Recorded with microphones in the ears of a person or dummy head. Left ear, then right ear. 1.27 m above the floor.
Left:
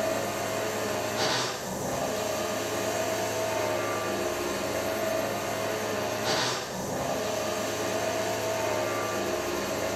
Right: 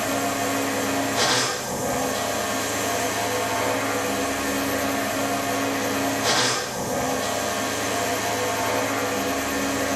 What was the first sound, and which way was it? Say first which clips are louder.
A machine running: right 5 dB; 35° right (ahead or behind).